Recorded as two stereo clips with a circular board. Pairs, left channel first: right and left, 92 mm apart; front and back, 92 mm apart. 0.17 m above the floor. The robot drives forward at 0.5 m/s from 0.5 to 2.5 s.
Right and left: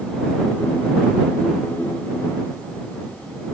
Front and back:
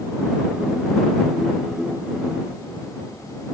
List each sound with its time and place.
Only background noise.